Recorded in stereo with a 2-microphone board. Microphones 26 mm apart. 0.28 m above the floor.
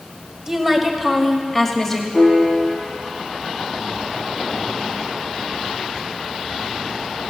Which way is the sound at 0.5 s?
25° right (ahead or behind).